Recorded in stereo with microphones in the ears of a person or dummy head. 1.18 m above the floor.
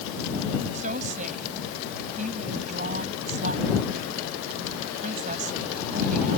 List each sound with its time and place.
0.7 s a woman speaking: 45° right (ahead or behind)